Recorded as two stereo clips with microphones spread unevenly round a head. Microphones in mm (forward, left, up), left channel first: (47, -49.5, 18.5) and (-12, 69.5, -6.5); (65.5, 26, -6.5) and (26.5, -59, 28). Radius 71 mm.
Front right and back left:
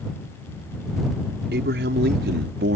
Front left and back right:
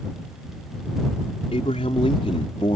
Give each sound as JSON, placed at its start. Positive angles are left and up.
{"t": 1.5, "sound": "a man speaking", "azimuth_deg": 120}